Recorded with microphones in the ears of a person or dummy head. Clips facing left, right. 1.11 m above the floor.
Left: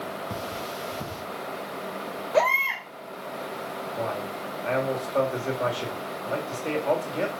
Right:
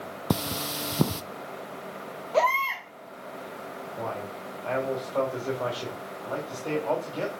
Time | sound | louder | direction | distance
0.3 | cutlery clinking | right 3 dB | 60° right (ahead or behind) | 0.5 m
2.3 | a baby crying | left 1 dB | 15° left (ahead or behind) | 3 m
4.0 | a man speaking | left 3 dB | 20° left (ahead or behind) | 4 m